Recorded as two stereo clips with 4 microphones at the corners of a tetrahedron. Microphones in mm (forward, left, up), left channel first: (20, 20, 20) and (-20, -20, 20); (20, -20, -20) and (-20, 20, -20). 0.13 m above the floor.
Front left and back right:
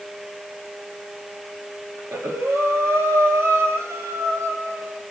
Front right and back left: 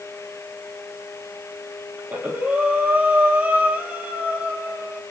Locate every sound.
2.0 s breathing: 165° right, 1.2 m